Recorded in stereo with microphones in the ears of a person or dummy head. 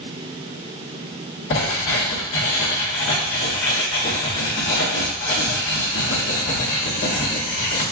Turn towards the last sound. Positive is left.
turn(degrees=45)  # may be behind; listen again after turning